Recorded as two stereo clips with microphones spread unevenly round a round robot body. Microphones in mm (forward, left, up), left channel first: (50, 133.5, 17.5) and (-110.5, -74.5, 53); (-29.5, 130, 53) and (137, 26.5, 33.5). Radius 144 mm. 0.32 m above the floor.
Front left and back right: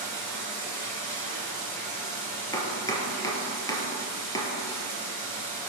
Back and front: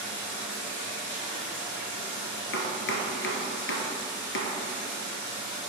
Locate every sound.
0.0 s running water: 130° left, 2.5 m
2.5 s chopping: 130° left, 1.0 m